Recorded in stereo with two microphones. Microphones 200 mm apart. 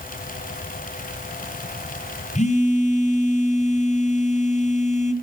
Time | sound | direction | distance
2.4 | a phone buzzing | 35° left (ahead or behind) | 1.7 m